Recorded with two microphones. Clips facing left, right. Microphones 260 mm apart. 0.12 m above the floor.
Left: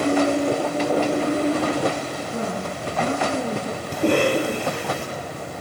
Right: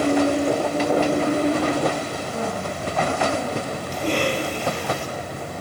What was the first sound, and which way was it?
A woman speaking, 35° left (ahead or behind).